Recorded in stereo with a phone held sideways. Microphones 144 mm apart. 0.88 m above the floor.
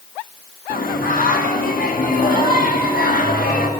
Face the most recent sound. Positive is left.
turn(degrees=80)